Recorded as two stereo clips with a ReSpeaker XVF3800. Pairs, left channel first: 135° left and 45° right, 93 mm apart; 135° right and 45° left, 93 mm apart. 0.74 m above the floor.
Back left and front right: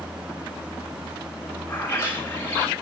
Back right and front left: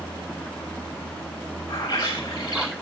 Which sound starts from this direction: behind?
A bird, at 1.7 s.